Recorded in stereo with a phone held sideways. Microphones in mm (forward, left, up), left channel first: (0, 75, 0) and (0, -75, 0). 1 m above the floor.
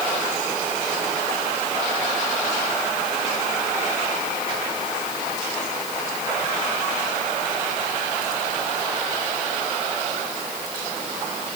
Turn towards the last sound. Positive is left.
No sound to turn to.